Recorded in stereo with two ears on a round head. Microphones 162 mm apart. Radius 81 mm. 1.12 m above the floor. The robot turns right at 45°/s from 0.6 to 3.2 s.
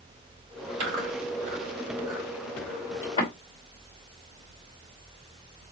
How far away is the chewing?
About 3.5 m.